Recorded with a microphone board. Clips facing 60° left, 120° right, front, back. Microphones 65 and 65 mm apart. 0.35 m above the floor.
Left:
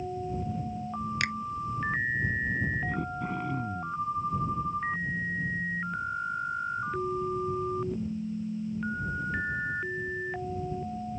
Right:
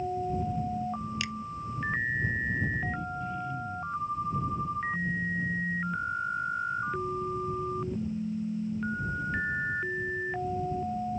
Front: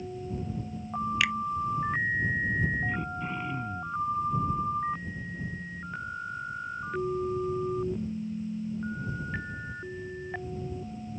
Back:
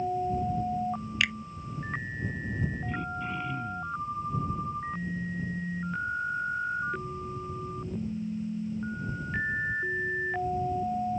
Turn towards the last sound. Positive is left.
turn(degrees=75)